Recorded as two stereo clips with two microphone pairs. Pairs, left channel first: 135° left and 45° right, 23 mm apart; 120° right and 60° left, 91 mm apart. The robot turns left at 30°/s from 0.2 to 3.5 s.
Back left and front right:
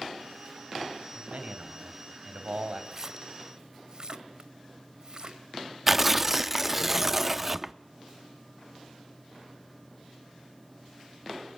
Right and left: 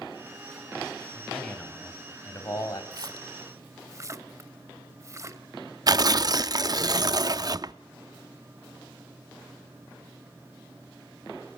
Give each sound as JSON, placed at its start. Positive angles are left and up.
{"t": 1.1, "sound": "a man speaking", "azimuth_deg": -25, "distance_m": 4.0}
{"t": 2.9, "sound": "a splash", "azimuth_deg": 20, "distance_m": 1.3}
{"t": 5.9, "sound": "tearing paper", "azimuth_deg": 30, "distance_m": 0.5}